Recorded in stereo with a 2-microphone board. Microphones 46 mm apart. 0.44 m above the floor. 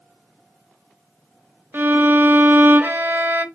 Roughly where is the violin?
Right.